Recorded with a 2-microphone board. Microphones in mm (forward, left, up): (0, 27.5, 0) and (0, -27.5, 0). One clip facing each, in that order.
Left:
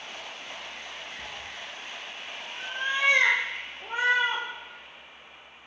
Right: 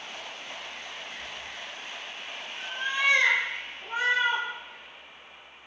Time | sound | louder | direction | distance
1.2 | a cat meowing | even | 75° left (ahead or behind) | 0.8 m